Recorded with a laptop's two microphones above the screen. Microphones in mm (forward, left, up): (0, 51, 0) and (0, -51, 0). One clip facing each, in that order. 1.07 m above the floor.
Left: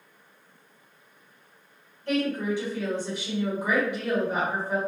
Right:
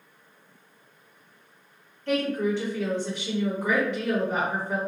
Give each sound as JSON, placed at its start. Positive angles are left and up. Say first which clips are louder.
{"t": 2.1, "sound": "a woman speaking", "louder": "right 1 dB", "side_deg": 10, "distance_m": 1.3}